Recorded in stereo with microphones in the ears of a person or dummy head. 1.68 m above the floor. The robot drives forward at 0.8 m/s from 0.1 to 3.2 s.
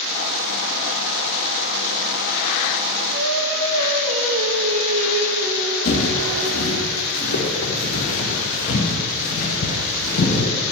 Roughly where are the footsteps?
Left.